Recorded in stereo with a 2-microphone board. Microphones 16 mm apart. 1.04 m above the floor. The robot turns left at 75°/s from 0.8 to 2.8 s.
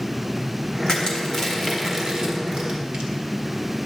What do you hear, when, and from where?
0.9 s crushing: 60° left (ahead or behind), 1.7 m; by 3.1 s 80° right, 1.7 m